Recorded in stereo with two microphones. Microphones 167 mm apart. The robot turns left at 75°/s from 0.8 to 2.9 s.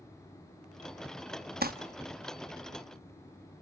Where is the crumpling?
65° right (ahead or behind), 1.0 m; by 1.7 s 60° right (ahead or behind), 1.0 m.